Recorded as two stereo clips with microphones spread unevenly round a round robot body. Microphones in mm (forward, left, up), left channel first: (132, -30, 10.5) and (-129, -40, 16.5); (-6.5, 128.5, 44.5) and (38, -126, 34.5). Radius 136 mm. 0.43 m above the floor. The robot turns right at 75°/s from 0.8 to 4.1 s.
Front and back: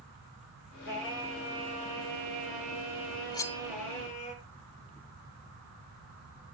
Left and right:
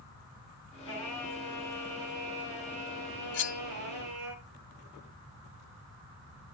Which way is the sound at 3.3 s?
70° left.